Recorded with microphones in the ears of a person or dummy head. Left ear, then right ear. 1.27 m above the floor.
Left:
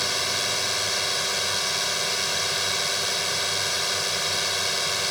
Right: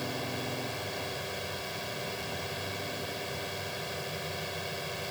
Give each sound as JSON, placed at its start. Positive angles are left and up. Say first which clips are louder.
{"t": 0.0, "sound": "a drone", "louder": "left 11 dB", "side_deg": 60}